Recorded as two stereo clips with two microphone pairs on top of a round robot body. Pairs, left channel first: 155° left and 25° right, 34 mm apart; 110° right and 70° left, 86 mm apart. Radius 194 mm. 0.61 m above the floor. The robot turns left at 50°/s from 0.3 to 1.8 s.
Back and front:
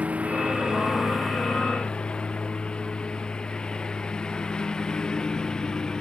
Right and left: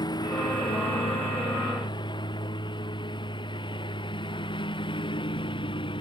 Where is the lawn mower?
70° right; by 6.0 s 135° right.